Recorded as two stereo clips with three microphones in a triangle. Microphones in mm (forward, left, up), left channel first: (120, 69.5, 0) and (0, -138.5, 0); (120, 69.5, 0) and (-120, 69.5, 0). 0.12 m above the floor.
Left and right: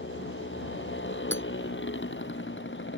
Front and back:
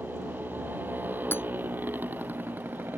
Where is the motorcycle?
95° left.